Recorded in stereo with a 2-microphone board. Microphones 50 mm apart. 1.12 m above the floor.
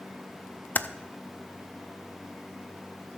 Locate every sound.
0.8 s typing on a keyboard: 35° left (ahead or behind), 0.6 m